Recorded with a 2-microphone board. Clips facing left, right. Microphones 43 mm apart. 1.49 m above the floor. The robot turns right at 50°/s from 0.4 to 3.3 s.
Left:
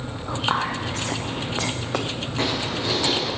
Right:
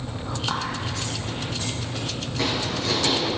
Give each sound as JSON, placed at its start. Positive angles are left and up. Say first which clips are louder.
{"t": 0.3, "sound": "whispering", "louder": "left 5 dB", "side_deg": 20, "distance_m": 0.6}
{"t": 2.4, "sound": "footsteps", "louder": "even", "azimuth_deg": 135, "distance_m": 6.0}